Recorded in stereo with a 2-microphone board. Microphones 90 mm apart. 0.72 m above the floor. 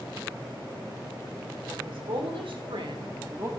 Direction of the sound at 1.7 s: 70° right (ahead or behind).